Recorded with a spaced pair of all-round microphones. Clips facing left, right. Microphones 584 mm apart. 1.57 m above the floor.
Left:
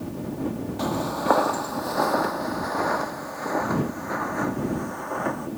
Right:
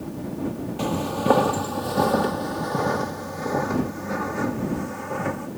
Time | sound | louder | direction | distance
0.8 | footsteps | right 3 dB | 55° right (ahead or behind) | ?